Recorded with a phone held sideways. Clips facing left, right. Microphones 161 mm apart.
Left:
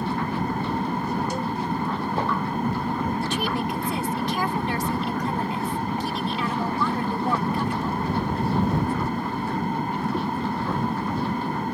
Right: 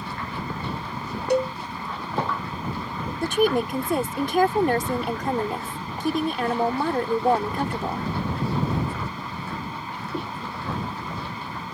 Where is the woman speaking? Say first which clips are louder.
Right 5 dB; 50° right (ahead or behind).